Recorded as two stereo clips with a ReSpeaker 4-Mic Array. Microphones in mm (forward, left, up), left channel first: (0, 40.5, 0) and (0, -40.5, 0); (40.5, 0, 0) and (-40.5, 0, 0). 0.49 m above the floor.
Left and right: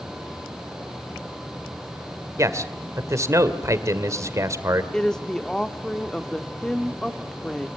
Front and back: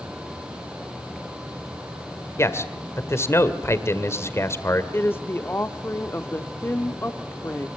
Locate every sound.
2.4 s a man speaking: 50° right, 2 m
4.9 s a woman speaking: 15° left, 1.1 m